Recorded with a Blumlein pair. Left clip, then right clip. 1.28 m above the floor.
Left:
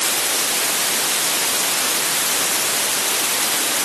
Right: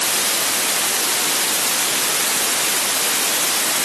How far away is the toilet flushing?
I don't hear a toilet flushing.